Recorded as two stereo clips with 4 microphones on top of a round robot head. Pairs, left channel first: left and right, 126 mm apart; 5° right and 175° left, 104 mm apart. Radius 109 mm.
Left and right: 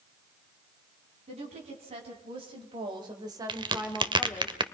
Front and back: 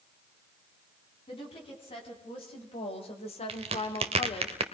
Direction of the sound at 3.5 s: 145° right.